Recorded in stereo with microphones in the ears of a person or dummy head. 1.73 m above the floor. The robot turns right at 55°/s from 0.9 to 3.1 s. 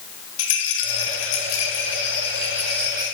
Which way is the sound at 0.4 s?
80° left.